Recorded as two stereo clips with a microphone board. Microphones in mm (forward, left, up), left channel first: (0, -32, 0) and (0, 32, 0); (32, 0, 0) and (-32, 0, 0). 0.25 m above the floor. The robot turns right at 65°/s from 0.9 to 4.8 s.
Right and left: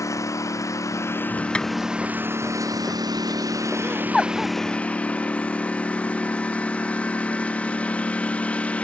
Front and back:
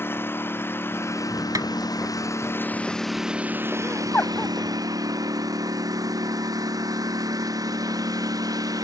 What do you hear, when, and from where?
0.0 s a lawn mower: 55° right; by 8.8 s 160° right
1.6 s tapping: 165° right; by 1.7 s 155° right
3.8 s laughter: 35° right; by 4.5 s 15° left